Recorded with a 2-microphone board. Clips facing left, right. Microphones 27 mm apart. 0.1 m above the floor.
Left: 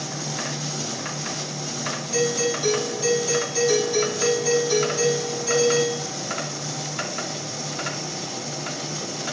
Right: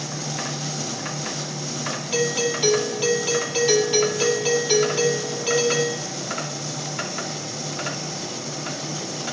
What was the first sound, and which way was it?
A doorbell, 45° right (ahead or behind).